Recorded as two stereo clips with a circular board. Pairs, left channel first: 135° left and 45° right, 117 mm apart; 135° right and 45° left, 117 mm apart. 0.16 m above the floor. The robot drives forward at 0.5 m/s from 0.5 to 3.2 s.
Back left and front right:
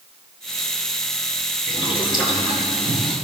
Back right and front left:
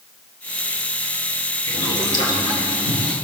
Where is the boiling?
Straight behind, 4 m.